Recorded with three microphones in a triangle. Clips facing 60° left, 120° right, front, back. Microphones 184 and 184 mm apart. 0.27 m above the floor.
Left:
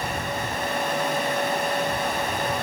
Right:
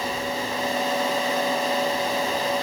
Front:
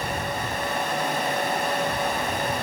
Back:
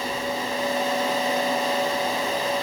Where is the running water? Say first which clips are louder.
Right 2 dB, back 2 dB; 30° left, 1.1 m.